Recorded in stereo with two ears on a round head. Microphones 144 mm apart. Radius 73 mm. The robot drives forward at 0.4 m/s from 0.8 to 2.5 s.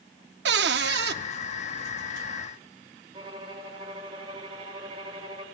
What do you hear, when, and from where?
0.5 s a cupboard door: 75° right (ahead or behind), 0.8 m
3.1 s a violin: 30° right (ahead or behind), 2.0 m